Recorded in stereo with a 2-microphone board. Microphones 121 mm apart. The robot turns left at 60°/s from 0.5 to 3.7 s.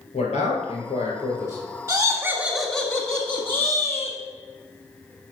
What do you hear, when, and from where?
0.1 s a man speaking: 85° left, 3.5 m; by 1.6 s 15° left, 3.5 m
1.9 s laughter: 25° right (ahead or behind), 1.3 m; by 4.2 s 20° left (ahead or behind), 1.3 m